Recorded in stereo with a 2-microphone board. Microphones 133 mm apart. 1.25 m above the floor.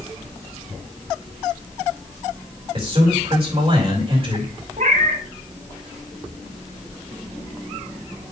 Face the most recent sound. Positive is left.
turn(degrees=-75)  # may be behind; listen again after turning